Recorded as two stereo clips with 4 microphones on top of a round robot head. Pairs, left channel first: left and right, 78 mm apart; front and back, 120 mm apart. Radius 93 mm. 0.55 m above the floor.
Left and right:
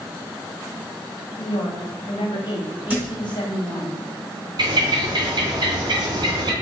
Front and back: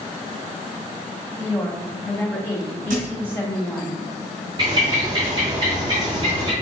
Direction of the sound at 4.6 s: 120° right.